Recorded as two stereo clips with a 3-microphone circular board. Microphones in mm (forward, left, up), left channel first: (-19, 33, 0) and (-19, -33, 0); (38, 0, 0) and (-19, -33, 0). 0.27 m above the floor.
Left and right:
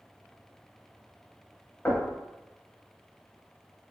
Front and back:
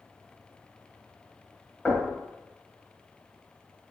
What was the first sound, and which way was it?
Knocking, 140° left.